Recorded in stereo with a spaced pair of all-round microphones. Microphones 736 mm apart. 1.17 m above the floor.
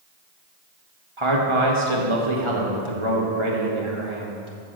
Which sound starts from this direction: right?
A man speaking, at 1.2 s.